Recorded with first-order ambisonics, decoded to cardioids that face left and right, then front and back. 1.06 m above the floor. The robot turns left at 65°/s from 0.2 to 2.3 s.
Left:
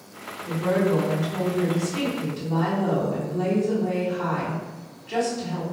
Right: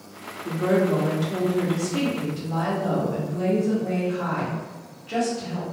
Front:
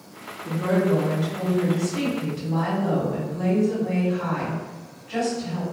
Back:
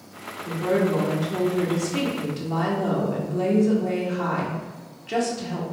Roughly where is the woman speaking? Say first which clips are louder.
Right 1 dB, even; ahead right.